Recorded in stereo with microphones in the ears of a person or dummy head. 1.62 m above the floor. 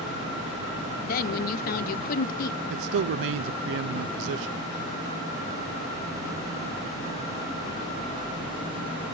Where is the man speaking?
60° right (ahead or behind), 0.5 m.